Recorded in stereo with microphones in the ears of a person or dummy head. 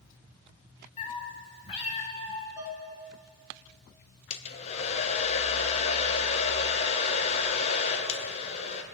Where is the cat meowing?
35° left (ahead or behind), 1.3 m.